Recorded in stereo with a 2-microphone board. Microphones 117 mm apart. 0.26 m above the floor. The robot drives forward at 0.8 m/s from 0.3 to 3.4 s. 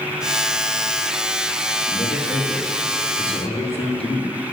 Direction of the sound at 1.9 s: 45° left (ahead or behind).